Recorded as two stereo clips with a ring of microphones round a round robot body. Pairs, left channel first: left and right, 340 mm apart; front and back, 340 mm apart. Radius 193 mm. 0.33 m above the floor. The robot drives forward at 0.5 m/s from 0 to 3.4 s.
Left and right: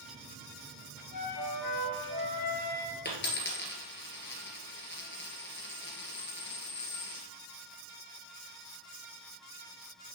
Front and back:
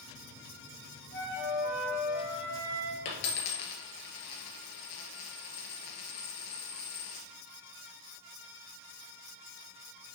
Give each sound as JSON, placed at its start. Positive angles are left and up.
{"t": 1.1, "sound": "a flute", "azimuth_deg": 60, "distance_m": 3.0}
{"t": 3.0, "sound": "a dropped coin", "azimuth_deg": 30, "distance_m": 2.0}